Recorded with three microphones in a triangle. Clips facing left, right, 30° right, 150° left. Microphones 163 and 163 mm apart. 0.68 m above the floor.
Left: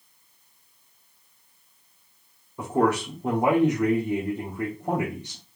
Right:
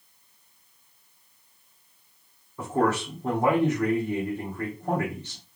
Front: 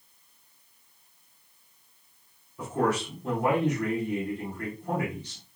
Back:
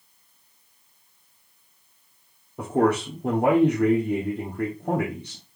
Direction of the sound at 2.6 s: 165° left.